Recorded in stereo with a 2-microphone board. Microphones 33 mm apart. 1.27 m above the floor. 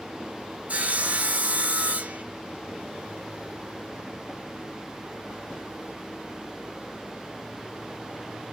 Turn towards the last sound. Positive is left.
turn(degrees=-50)  # may be behind; listen again after turning